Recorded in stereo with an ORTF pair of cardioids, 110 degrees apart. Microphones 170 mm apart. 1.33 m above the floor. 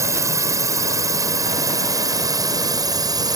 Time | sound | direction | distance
0.0 | a drone | 15° right | ?